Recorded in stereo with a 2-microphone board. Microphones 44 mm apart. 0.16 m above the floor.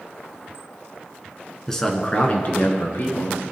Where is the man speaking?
5° left (ahead or behind), 1.6 m; by 3.4 s 65° left (ahead or behind), 3 m.